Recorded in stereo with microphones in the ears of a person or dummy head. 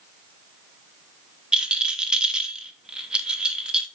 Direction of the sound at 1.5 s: 5° right (ahead or behind).